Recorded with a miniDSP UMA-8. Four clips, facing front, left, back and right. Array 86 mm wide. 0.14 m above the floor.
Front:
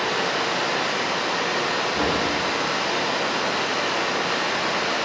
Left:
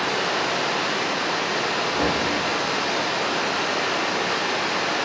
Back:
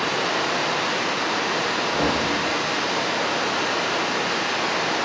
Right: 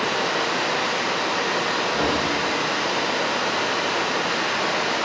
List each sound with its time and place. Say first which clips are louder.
0.0 s running water: right 1 dB, even; 115° right, 1.0 m
1.9 s knocking: even, back 2 dB; 175° left, 1.0 m